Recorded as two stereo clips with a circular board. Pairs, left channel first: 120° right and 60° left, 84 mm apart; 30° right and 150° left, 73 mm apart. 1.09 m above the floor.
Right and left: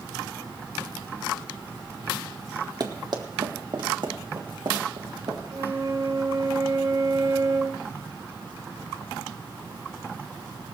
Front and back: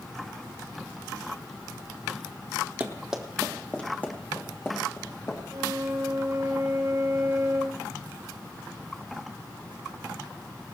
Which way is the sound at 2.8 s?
85° left.